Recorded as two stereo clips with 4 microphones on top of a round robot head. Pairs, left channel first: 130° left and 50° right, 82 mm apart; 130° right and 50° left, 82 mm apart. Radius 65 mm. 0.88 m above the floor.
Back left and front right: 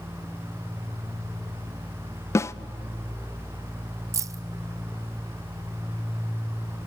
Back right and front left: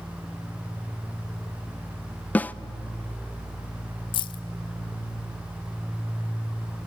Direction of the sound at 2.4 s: 165° left.